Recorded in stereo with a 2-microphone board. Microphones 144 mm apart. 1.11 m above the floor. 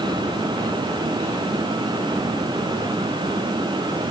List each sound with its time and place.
Only background noise.